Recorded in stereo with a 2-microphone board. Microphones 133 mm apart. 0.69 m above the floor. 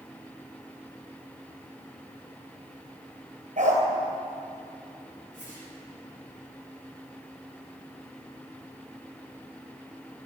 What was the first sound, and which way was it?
A dog barking, 65° right (ahead or behind).